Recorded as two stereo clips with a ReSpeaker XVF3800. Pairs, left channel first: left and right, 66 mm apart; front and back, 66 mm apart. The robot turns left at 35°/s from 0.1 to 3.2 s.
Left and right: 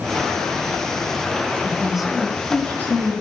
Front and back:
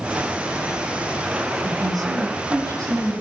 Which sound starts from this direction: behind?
A woman speaking, at 1.6 s.